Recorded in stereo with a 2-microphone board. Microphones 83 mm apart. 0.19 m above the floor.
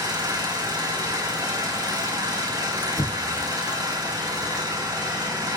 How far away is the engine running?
About 4 m.